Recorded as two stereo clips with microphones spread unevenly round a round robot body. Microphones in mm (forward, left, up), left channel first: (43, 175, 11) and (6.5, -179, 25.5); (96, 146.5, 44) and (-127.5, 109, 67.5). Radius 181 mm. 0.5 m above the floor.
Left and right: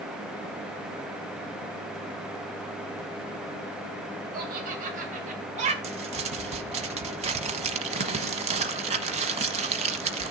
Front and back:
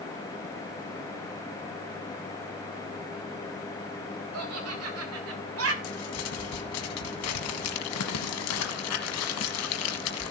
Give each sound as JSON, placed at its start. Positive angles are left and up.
{"t": 4.3, "sound": "laughter", "azimuth_deg": -160, "distance_m": 3.5}
{"t": 5.8, "sound": "crumpling", "azimuth_deg": -25, "distance_m": 1.0}